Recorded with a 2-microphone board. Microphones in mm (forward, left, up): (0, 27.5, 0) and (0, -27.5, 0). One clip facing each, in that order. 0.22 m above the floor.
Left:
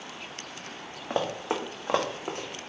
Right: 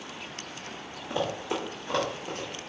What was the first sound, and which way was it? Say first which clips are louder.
Running footsteps: left 1 dB; 50° left (ahead or behind).